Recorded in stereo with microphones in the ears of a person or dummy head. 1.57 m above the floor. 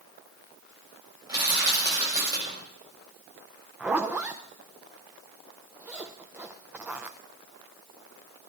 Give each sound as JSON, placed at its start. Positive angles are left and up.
{"t": 1.3, "sound": "crushing", "side_deg": -20, "distance_m": 7.0}
{"t": 3.8, "sound": "a zipper", "side_deg": -5, "distance_m": 0.7}